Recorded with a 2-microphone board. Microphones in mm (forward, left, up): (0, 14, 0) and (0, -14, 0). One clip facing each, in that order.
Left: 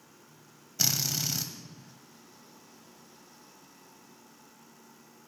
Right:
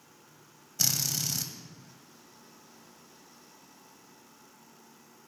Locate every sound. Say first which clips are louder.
0.8 s a drill: left 1 dB; 15° left (ahead or behind), 0.5 m